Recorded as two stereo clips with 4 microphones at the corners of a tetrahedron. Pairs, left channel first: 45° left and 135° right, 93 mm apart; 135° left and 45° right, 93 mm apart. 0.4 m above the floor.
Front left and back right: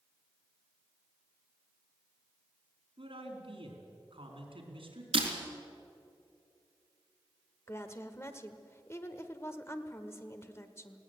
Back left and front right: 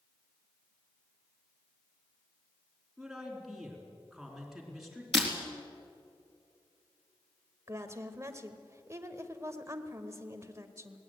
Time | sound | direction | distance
3.0 | a man speaking | 135° right | 4.5 m
5.1 | breaking glass | 135° right | 4 m
7.7 | a woman speaking | 5° right | 1.3 m